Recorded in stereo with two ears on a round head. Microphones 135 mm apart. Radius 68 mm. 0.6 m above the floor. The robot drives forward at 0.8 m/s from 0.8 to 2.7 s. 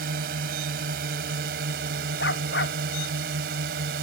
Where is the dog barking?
85° left.